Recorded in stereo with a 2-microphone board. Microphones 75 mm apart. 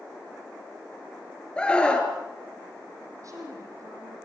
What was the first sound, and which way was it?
A scream, 10° left (ahead or behind).